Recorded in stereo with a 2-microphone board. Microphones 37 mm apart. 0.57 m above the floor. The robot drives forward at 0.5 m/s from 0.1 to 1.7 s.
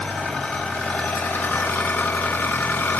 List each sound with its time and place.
0.0 s an engine running: 35° left (ahead or behind), 1.2 m; by 3.0 s 75° left (ahead or behind), 0.7 m